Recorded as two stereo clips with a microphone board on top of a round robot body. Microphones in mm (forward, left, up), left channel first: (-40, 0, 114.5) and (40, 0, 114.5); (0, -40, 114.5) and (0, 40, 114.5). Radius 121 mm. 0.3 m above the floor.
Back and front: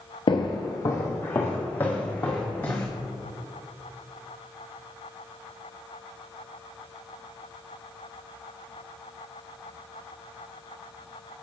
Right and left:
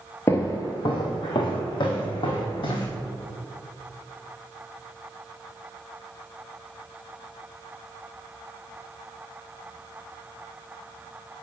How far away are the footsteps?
About 0.5 m.